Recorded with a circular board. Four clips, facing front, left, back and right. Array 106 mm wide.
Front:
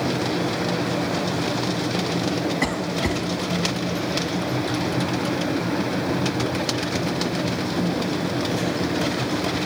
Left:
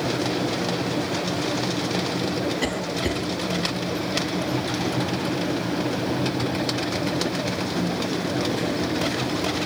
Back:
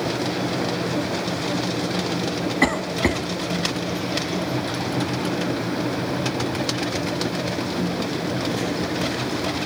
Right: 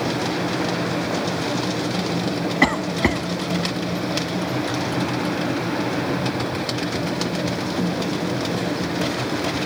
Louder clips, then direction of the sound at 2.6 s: Right 6 dB, back 3 dB; 110° right.